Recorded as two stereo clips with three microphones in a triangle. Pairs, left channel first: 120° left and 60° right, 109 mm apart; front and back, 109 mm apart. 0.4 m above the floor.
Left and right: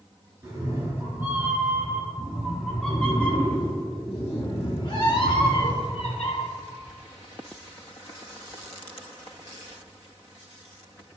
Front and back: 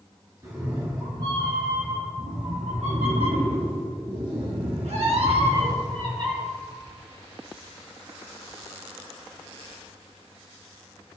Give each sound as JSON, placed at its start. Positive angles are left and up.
{"t": 0.4, "sound": "a cat meowing", "azimuth_deg": -120, "distance_m": 2.5}